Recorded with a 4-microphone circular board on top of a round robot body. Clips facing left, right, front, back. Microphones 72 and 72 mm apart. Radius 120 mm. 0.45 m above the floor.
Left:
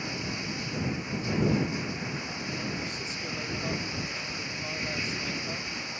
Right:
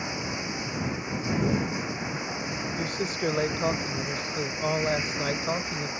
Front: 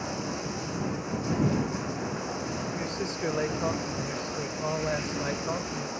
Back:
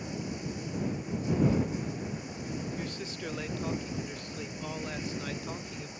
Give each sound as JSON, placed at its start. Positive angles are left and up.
{"t": 0.0, "sound": "running water", "azimuth_deg": -20}
{"t": 1.4, "sound": "knocking", "azimuth_deg": 115}
{"t": 2.8, "sound": "a man speaking", "azimuth_deg": -65}